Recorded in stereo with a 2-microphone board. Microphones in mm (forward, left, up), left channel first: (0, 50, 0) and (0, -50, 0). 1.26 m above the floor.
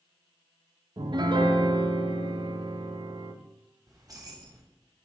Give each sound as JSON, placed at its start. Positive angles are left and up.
{"t": 1.0, "sound": "a piano", "side_deg": -50, "distance_m": 0.6}
{"t": 3.9, "sound": "keys jangling", "side_deg": -35, "distance_m": 1.1}